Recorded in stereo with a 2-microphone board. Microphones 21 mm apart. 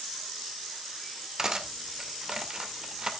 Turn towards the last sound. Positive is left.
turn(degrees=-25)  # may be behind; listen again after turning